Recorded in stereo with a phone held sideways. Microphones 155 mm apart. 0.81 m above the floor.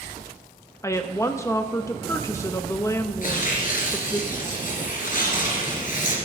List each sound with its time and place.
0.8 s a woman speaking: 15° left (ahead or behind), 0.6 m
3.2 s tearing paper: 55° left (ahead or behind), 2.5 m